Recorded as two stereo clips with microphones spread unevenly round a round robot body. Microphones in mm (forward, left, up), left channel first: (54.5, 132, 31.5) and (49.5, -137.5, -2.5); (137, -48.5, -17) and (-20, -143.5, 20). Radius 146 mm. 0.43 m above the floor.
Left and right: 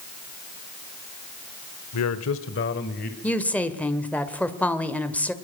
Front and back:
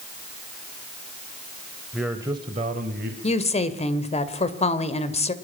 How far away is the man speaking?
About 1.3 m.